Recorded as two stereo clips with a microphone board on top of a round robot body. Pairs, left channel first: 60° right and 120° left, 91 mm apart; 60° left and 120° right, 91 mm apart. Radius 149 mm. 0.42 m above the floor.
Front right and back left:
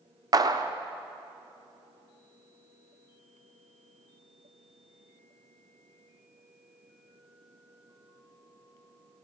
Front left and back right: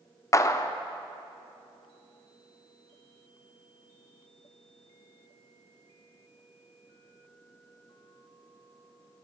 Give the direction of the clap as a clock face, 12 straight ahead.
9 o'clock.